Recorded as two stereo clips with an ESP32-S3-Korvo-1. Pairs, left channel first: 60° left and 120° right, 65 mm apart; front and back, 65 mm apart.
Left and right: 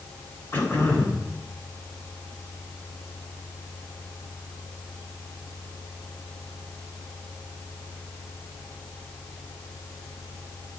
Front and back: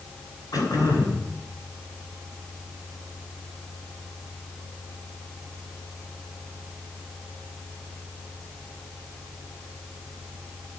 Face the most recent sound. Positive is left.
turn(degrees=10)